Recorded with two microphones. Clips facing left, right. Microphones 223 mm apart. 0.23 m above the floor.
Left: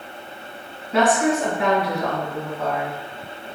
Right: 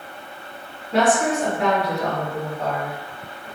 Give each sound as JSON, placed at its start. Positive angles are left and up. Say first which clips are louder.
{"t": 0.9, "sound": "a woman speaking", "louder": "left 1 dB", "side_deg": -35, "distance_m": 1.7}